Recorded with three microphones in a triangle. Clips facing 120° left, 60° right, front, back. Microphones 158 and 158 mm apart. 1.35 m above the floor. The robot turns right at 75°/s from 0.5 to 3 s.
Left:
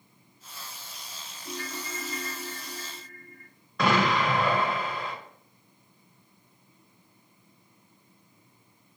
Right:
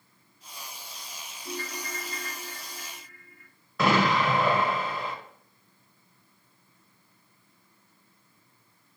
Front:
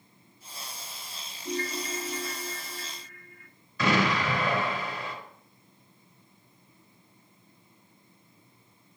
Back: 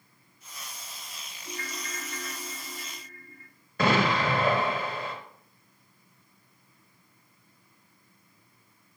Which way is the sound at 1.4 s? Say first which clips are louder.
Right 1 dB, front 8 dB; 25° left.